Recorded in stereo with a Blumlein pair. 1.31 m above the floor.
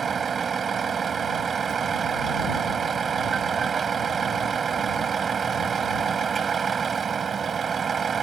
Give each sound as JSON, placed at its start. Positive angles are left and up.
{"t": 0.0, "sound": "a vehicle", "azimuth_deg": -20}